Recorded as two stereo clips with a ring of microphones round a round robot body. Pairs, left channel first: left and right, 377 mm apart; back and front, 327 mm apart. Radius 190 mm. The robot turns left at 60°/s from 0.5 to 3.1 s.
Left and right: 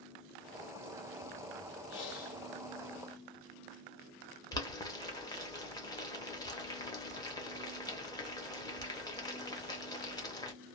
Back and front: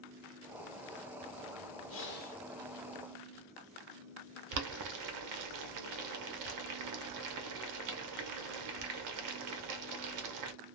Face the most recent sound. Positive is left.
turn(degrees=10)